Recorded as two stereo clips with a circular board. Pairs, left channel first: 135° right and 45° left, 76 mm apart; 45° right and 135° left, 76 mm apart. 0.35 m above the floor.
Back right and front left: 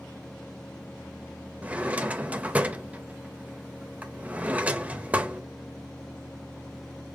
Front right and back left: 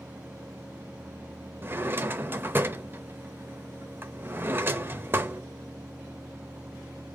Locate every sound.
1.6 s a drawer: 100° left, 0.6 m